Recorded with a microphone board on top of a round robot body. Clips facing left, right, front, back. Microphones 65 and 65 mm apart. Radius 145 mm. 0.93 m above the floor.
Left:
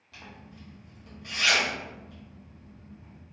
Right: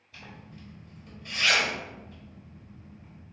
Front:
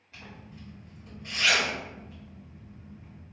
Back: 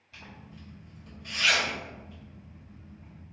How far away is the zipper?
About 1.2 m.